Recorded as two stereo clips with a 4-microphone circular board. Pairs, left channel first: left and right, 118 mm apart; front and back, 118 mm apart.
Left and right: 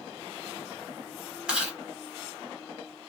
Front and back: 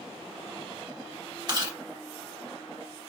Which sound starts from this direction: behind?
Chewing, at 1.5 s.